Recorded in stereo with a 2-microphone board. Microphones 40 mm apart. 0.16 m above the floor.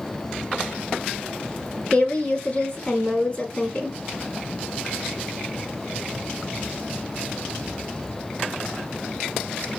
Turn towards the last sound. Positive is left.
turn(degrees=30)  # may be behind; listen again after turning